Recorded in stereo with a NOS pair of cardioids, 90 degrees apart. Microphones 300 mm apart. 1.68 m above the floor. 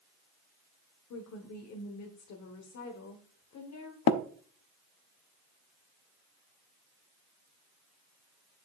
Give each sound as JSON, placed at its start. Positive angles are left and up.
{"t": 1.1, "sound": "a woman speaking", "azimuth_deg": 60, "distance_m": 1.4}
{"t": 4.1, "sound": "tapping", "azimuth_deg": 65, "distance_m": 0.6}